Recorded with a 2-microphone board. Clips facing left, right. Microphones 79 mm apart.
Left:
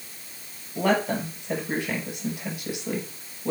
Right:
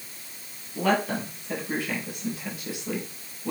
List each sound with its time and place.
0.8 s a woman speaking: 20° left (ahead or behind), 5 m